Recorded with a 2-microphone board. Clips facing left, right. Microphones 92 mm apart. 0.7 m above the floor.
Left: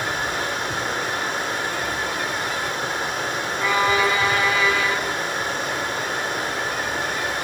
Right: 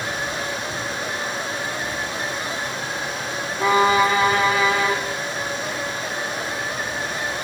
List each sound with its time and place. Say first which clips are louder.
0.0 s running water: left 2 dB; 45° left (ahead or behind), 7.5 m
3.6 s a violin: right 4 dB; 35° right (ahead or behind), 3.5 m